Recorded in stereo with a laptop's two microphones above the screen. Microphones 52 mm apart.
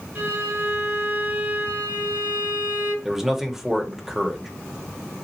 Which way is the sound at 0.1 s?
45° right (ahead or behind).